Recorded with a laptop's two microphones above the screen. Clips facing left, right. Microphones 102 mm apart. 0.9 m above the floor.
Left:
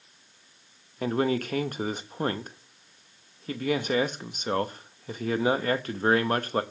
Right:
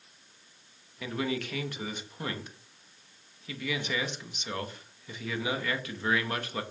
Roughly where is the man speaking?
Left.